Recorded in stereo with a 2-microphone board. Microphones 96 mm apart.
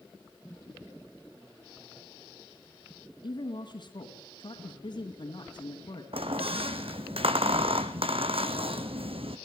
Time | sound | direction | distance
3.2 | a woman speaking | 60° left (ahead or behind) | 2.5 m
6.1 | a squeak | 80° right | 1.4 m